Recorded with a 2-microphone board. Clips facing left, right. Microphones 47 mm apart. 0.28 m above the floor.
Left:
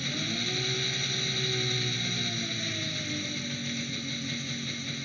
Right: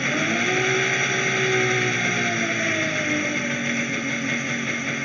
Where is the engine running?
50° right (ahead or behind).